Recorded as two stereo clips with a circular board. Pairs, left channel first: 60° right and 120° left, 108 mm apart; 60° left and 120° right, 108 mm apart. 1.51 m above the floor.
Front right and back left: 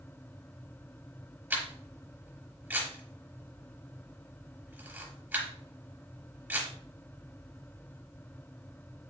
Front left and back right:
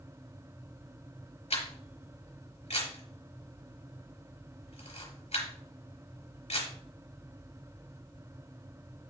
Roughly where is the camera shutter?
Ahead left.